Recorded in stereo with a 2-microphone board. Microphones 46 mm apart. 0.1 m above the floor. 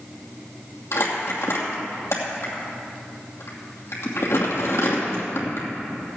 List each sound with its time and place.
0.9 s crumpling: 70° left (ahead or behind), 2.5 m